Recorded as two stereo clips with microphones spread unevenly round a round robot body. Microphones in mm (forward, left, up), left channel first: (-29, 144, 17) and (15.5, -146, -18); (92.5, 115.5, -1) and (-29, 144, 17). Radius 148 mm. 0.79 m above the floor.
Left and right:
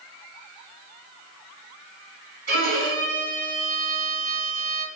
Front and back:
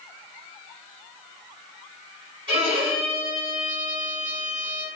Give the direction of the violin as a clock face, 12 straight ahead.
5 o'clock.